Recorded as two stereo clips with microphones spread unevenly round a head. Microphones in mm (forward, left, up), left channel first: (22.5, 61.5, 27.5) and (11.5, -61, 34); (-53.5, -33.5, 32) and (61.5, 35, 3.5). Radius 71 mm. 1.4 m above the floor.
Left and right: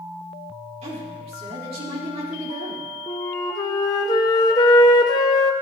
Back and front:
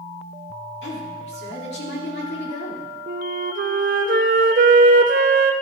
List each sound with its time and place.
0.8 s a woman speaking: 140° right, 3.5 m
3.1 s a flute: 35° left, 0.8 m